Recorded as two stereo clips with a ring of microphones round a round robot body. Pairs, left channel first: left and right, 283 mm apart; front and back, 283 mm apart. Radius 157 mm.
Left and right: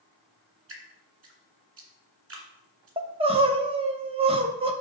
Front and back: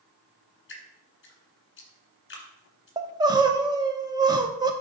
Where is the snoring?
No snoring in this recording.